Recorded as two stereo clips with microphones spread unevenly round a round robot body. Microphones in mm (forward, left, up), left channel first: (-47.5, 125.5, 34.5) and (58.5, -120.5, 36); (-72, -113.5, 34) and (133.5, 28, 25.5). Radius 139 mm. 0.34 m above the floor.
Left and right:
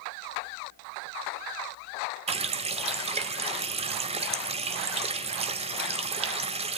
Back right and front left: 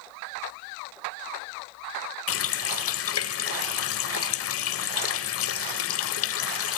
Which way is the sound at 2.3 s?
130° right.